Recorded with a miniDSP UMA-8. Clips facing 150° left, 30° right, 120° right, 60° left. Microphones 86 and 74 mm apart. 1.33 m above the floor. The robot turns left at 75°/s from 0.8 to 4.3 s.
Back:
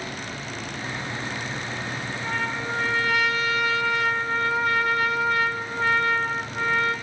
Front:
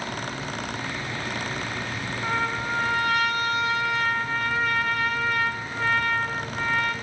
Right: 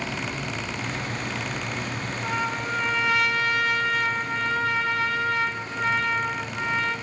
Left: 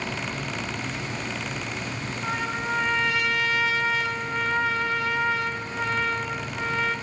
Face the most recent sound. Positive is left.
turn(degrees=-145)